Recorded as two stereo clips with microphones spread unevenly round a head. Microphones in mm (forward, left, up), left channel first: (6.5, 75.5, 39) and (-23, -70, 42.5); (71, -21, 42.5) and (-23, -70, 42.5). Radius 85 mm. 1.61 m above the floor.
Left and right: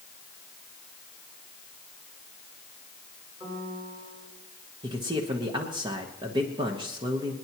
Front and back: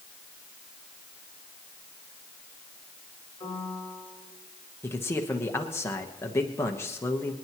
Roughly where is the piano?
Ahead right.